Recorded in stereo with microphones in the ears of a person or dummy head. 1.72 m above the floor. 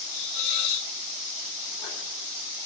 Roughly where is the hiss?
Left.